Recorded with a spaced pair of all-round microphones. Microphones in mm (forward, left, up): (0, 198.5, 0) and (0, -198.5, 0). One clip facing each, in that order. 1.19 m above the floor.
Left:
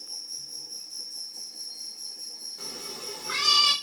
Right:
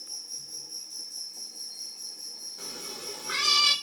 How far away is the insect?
About 0.7 m.